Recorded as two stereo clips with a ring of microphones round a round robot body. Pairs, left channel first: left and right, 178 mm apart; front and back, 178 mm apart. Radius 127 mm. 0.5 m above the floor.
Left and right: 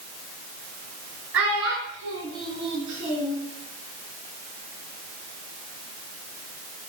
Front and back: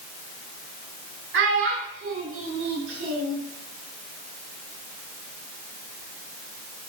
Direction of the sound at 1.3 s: 175° right.